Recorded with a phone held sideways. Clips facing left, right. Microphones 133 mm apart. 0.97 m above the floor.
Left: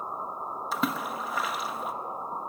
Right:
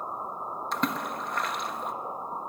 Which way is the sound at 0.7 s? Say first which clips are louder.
Even; 5° left (ahead or behind).